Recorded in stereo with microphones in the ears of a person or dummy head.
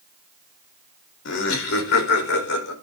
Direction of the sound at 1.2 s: 60° left (ahead or behind).